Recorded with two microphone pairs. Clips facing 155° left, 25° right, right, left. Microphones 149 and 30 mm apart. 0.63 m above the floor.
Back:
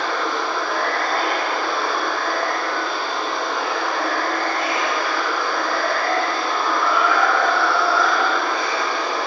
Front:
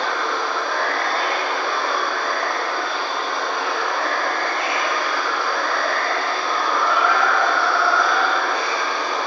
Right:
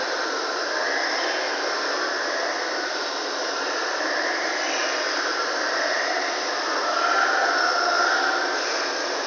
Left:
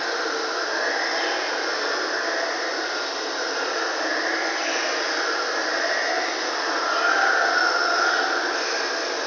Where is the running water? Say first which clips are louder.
Even, even; 105° left, 1.2 m.